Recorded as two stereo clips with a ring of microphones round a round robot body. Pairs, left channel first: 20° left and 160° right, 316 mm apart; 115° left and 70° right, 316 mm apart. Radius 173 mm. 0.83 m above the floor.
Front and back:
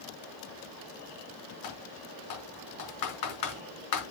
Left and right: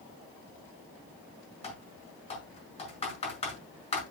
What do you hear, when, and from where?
1.6 s typing on a keyboard: 40° left, 5.5 m